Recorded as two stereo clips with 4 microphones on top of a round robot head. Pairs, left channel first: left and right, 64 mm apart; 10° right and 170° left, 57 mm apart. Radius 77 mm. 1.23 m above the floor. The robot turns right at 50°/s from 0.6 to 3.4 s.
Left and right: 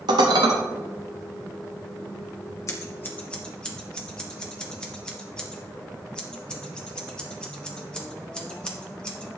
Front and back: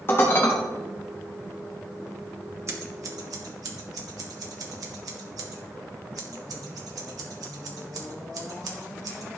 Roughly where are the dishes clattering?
Right.